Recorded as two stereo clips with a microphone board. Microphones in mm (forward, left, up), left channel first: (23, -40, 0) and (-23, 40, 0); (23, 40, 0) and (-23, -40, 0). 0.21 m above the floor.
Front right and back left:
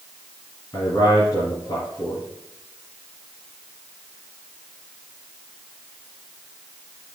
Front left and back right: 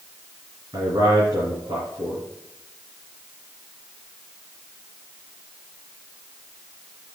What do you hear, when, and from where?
0.7 s a man speaking: 100° right, 3 m